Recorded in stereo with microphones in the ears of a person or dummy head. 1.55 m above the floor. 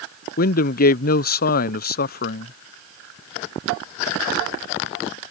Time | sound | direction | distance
0.4 | a man speaking | 55° left (ahead or behind) | ?